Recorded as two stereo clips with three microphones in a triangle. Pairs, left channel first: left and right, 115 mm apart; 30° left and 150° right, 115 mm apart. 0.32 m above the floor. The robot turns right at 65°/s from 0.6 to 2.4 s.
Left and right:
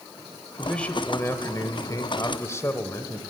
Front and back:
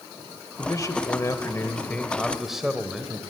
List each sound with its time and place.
0.6 s a man speaking: 5° left, 1.2 m; by 3.2 s 125° left, 1.2 m